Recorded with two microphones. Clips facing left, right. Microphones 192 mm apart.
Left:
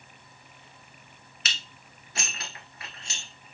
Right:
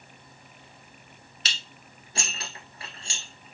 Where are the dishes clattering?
35° right (ahead or behind), 1.3 m.